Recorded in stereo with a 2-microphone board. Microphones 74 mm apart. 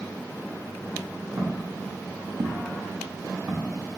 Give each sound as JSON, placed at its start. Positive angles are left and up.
{"t": 1.4, "sound": "footsteps", "side_deg": -45, "distance_m": 0.7}